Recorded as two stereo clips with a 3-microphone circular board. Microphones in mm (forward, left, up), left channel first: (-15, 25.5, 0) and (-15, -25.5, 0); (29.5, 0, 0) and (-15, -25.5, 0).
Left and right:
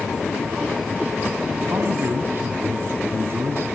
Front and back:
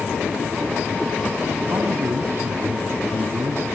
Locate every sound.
1.7 s a man speaking: 120° right, 3 m